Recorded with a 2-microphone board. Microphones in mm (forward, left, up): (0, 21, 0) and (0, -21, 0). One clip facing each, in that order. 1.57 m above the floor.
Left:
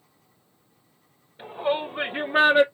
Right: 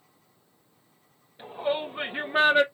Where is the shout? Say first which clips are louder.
Left 3 dB; 10° left (ahead or behind), 2 m.